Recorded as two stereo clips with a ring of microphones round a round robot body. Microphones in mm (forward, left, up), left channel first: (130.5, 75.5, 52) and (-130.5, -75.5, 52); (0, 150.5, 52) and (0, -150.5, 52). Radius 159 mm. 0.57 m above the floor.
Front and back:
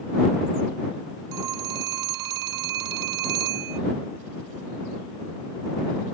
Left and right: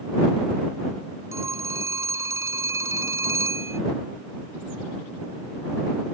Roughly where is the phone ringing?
Behind.